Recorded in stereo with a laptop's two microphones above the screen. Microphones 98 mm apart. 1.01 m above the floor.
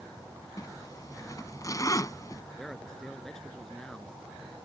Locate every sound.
0.6 s a zipper: 35° left (ahead or behind)
2.6 s a man speaking: 5° left (ahead or behind)